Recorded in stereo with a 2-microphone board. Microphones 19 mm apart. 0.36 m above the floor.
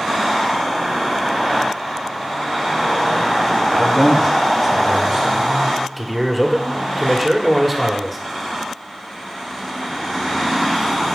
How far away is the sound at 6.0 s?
About 1.4 m.